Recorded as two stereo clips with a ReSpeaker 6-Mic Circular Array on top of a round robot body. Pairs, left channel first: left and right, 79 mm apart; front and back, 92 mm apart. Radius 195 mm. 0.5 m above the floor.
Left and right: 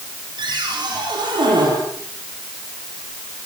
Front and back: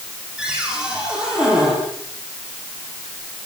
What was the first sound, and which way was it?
A cupboard door, 100° right.